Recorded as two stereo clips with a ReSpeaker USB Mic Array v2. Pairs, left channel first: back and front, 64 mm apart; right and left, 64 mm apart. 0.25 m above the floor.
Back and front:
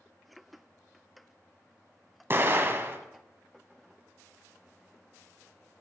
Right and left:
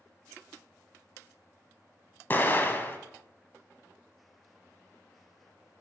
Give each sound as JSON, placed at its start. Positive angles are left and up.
{"t": 2.3, "sound": "an explosion", "azimuth_deg": -40, "distance_m": 0.9}